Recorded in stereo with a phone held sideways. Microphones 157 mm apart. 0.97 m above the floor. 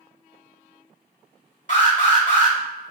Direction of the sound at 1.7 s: 55° left (ahead or behind).